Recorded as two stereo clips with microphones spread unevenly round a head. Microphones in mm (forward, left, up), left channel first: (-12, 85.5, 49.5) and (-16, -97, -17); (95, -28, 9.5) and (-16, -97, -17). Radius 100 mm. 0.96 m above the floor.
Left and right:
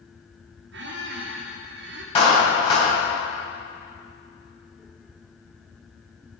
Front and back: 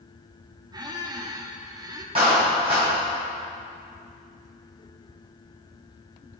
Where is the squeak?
90° right, 1.6 m.